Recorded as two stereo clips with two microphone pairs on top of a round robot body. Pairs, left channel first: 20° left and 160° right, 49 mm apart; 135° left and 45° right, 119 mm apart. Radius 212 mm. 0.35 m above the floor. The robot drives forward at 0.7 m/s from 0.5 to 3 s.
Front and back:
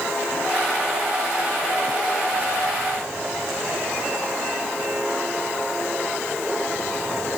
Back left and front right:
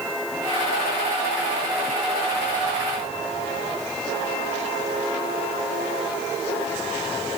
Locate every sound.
Only background noise.